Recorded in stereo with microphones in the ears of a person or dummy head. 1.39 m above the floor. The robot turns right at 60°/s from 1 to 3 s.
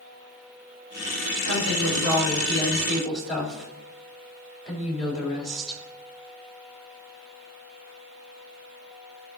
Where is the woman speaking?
90° right, 3.5 m; by 5.8 s straight ahead, 3.5 m.